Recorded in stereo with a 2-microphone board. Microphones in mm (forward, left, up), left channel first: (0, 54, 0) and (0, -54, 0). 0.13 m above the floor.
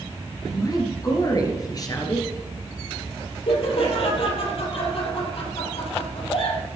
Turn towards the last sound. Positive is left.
turn(degrees=60)  # may be behind; listen again after turning